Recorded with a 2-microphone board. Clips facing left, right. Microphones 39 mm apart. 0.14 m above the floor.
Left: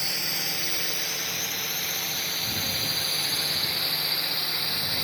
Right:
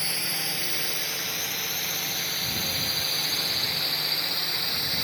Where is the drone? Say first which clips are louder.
Even; 15° right (ahead or behind); by 5.0 s 10° left (ahead or behind).